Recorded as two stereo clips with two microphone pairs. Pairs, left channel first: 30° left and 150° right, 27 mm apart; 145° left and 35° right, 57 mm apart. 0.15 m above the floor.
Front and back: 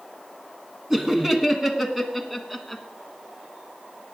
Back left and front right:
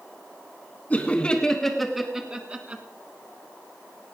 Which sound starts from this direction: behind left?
Laughter, at 0.9 s.